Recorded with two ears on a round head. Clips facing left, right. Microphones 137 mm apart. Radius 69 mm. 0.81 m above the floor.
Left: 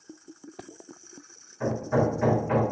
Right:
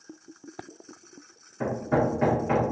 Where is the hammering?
60° right (ahead or behind), 0.8 m.